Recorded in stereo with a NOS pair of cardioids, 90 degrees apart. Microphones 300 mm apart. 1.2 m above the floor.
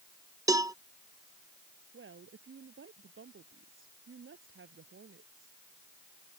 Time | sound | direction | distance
0.5 | a cowbell | 10° right | ?
1.9 | a woman speaking | 40° right | ?